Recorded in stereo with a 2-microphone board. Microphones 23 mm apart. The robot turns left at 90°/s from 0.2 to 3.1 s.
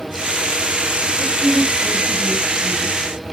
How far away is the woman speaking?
About 4.5 m.